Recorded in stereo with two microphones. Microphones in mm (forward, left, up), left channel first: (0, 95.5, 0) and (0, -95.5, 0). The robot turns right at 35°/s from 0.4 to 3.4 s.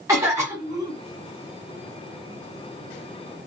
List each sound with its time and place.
0.1 s a cough: 15° right (ahead or behind), 1.5 m; by 1.0 s 20° right (ahead or behind), 1.5 m